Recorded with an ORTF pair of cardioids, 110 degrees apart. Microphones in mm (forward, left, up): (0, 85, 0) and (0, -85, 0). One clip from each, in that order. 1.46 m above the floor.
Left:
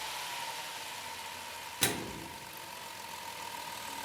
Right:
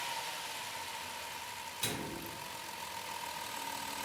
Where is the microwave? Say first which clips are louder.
Left 6 dB; 65° left, 0.5 m.